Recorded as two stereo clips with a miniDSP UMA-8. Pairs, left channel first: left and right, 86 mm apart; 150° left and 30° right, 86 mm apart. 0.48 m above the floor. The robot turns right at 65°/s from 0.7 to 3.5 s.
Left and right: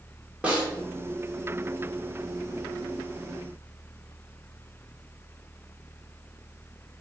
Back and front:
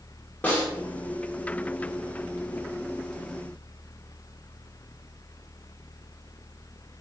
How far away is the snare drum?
About 1.3 m.